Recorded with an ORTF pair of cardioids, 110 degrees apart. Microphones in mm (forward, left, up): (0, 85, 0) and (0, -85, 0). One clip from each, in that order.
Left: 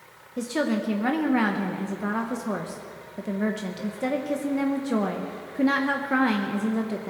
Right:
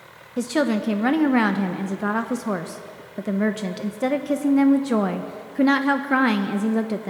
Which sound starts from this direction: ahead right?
A woman speaking, at 0.4 s.